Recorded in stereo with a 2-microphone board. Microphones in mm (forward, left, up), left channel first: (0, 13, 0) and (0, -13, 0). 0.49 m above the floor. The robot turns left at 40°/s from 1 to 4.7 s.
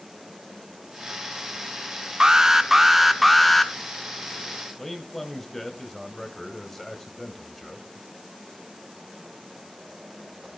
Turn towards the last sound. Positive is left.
turn(degrees=10)  # may be behind; listen again after turning